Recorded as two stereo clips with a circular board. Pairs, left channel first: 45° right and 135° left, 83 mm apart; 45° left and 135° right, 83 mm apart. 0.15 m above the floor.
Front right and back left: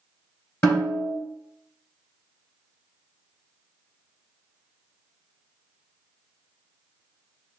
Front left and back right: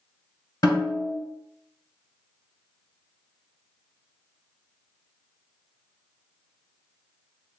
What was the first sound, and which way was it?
A snare drum, 10° left.